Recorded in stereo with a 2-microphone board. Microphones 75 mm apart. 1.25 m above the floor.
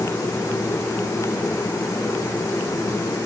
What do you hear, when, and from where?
Only background noise.